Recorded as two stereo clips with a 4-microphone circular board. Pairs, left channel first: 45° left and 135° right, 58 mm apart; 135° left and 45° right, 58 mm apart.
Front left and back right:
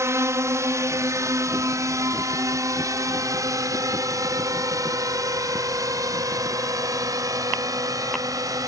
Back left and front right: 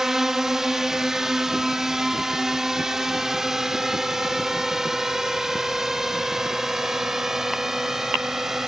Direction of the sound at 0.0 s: 125° right.